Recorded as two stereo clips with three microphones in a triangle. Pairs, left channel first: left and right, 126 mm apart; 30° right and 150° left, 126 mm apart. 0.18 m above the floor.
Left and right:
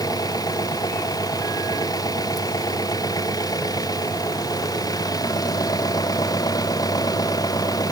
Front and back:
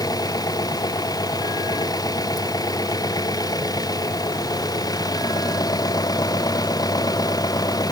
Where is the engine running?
30° left.